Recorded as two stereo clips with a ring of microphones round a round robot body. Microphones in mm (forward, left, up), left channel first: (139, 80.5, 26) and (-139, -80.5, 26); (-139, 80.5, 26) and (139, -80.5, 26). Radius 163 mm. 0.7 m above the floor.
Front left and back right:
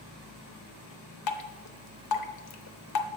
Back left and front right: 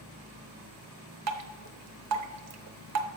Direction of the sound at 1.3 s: 5° left.